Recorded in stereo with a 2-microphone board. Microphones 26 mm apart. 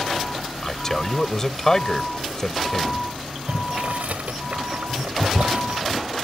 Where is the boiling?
75° right (ahead or behind).